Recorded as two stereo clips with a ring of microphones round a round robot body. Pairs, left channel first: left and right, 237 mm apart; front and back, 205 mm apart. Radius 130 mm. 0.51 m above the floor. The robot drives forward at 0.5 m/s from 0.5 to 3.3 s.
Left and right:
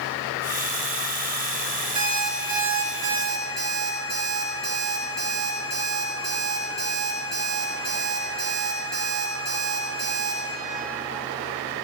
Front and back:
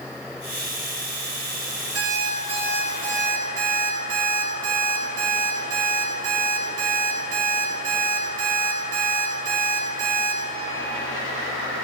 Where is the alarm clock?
165° right, 4 m.